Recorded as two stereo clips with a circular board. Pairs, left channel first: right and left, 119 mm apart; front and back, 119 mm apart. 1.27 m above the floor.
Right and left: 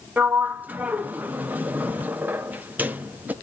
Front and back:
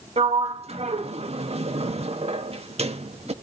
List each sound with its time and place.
0.2 s a sliding door: 165° left, 0.8 m